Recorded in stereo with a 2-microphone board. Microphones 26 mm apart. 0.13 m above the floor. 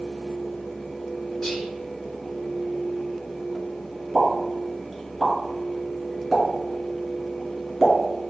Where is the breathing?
I don't hear breathing.